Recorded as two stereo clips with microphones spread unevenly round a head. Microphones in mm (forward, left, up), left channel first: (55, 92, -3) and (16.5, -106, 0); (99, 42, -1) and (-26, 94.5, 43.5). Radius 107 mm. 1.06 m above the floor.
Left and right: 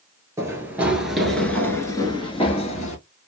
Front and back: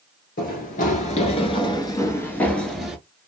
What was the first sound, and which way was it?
Running footsteps, 35° right.